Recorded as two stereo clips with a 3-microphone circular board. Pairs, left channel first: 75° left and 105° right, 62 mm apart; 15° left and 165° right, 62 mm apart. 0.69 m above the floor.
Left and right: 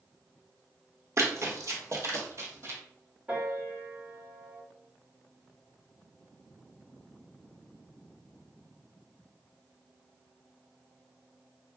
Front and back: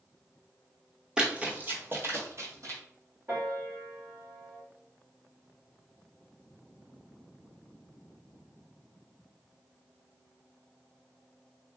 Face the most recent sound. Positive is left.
turn(degrees=-150)